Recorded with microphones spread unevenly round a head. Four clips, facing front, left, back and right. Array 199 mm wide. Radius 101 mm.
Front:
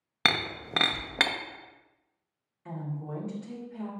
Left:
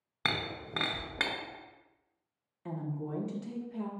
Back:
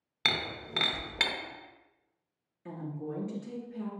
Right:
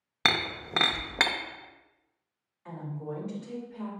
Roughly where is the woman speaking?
Behind left.